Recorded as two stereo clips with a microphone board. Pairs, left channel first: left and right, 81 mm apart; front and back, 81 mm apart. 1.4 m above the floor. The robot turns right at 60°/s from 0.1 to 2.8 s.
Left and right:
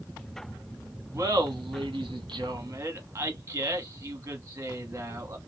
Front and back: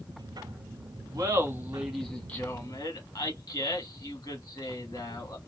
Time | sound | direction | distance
1.1 | laughter | 140° right | 1.1 m